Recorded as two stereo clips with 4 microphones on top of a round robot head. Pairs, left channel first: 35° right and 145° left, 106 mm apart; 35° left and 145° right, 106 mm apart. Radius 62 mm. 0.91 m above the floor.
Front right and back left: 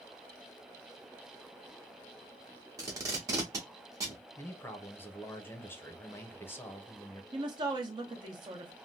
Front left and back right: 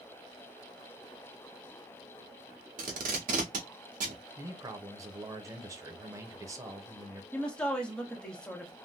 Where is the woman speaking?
115° left, 1.1 m.